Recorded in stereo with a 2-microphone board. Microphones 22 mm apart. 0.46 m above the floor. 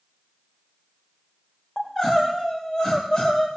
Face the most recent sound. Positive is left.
turn(degrees=30)  # may be behind; listen again after turning